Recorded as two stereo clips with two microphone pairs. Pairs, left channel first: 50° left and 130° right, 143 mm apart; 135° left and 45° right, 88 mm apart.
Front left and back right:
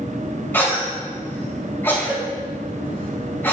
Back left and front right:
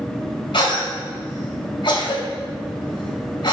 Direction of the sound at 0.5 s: 125° left.